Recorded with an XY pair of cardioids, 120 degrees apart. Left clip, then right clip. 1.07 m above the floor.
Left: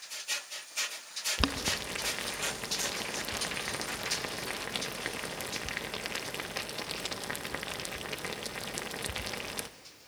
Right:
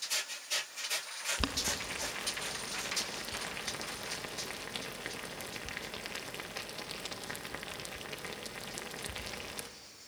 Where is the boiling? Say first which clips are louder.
Left 5 dB; 25° left, 0.9 m.